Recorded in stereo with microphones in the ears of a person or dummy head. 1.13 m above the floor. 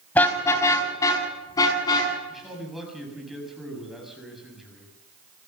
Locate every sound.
0.1 s a car horn: 15° left (ahead or behind), 4 m; by 2.1 s 25° left (ahead or behind), 6.5 m
2.3 s a man speaking: centre (ahead or behind), 7 m